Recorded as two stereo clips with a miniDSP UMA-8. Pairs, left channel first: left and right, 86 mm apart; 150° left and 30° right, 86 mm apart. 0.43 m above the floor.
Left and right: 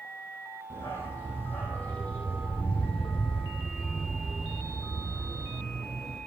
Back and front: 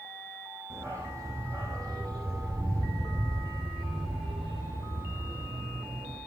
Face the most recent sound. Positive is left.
turn(degrees=-15)